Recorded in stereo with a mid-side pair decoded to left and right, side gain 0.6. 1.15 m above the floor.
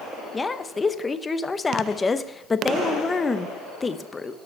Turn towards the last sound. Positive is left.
turn(degrees=20)